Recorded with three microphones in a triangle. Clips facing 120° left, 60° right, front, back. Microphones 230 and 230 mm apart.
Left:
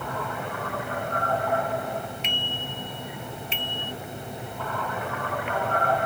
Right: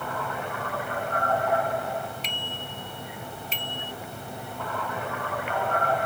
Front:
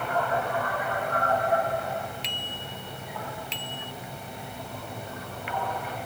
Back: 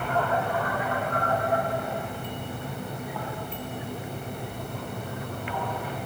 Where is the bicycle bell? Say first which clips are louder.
Left 3 dB, back 6 dB; 5° right; by 3.9 s 10° right.